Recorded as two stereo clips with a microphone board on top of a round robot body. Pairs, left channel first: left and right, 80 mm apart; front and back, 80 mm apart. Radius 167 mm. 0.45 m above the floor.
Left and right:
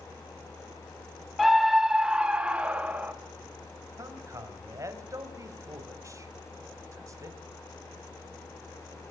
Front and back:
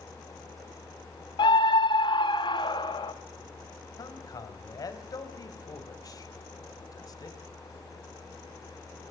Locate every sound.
1.4 s a scream: straight ahead, 1.6 m; by 3.1 s 15° right, 2.5 m
4.0 s a man speaking: 40° right, 4 m